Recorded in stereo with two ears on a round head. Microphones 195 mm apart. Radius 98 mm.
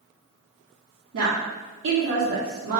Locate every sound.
1.1 s a woman speaking: 60° right (ahead or behind), 0.5 m